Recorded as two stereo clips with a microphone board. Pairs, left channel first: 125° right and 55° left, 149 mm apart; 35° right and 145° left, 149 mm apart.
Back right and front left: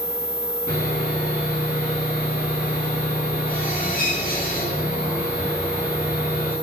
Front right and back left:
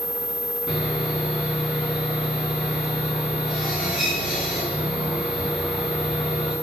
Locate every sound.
0.7 s sawing: 125° right, 6.5 m